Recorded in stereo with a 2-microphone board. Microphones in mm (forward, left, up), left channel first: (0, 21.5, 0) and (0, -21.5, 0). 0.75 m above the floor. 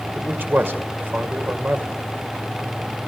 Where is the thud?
No thud in this recording.